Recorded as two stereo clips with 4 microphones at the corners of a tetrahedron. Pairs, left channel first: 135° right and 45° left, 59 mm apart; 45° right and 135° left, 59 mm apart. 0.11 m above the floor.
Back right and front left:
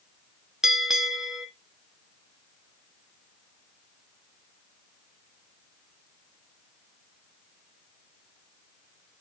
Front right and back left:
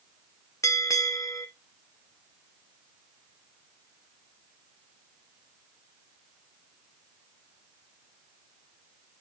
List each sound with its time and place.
0.6 s a bell: 35° right, 1.5 m